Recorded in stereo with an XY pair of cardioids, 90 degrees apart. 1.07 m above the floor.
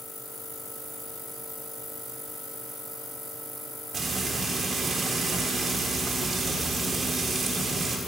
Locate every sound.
3.9 s frying: 50° right, 1.8 m